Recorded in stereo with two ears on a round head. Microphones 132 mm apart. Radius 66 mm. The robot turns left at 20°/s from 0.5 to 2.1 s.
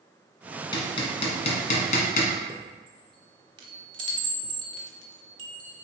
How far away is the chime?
About 1.1 m.